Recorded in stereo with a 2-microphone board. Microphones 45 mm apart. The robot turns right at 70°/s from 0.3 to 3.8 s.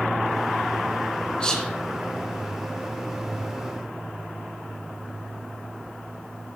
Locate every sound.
1.4 s whispering: 25° left (ahead or behind), 3 m; by 1.7 s 5° left (ahead or behind), 3 m